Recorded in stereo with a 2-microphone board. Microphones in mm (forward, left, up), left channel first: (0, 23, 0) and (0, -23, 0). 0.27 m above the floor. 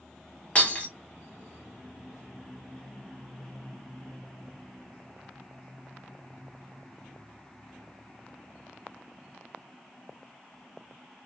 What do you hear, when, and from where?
0.6 s breaking glass: 25° left (ahead or behind), 1.1 m